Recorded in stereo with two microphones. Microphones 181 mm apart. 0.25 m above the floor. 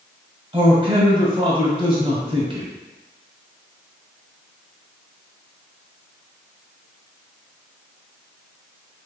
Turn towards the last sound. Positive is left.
turn(degrees=-30)  # may be behind; listen again after turning